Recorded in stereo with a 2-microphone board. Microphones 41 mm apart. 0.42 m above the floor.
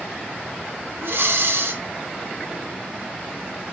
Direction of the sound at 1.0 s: 65° right (ahead or behind).